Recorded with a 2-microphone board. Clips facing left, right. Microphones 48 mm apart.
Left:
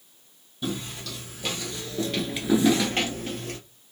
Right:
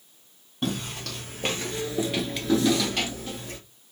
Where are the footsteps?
55° right (ahead or behind), 1.5 m; by 3.6 s 55° left (ahead or behind), 1.2 m.